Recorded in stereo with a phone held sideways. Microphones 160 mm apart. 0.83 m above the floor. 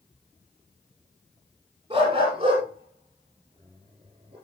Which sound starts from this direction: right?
A dog barking, at 1.9 s.